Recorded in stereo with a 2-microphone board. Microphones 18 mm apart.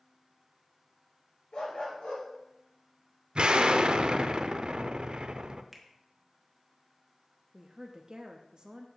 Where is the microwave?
I don't hear a microwave.